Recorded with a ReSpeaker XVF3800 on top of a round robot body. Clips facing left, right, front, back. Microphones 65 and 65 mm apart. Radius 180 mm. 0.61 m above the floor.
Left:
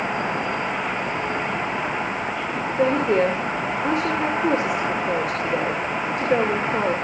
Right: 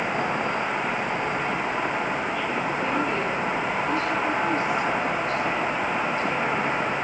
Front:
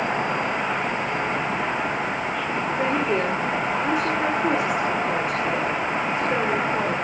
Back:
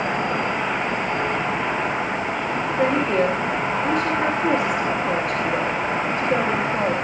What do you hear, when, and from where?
2.8 s a woman speaking: 85° left, 2.5 m